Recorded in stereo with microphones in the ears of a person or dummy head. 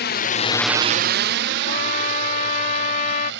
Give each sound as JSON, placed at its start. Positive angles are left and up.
{"t": 0.0, "sound": "a drone", "side_deg": 50}
{"t": 1.7, "sound": "a trumpet", "side_deg": 40}